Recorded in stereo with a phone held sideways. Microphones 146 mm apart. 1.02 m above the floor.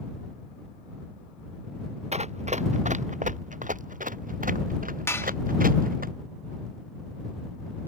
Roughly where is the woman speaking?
I don't hear a woman speaking.